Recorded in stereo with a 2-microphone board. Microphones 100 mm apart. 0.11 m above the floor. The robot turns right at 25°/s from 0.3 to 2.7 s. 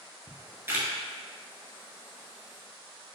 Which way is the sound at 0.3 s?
20° right (ahead or behind).